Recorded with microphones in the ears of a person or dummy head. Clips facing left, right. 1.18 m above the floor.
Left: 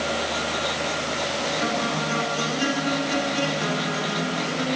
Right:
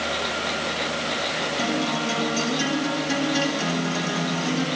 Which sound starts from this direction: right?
A guitar, at 1.6 s.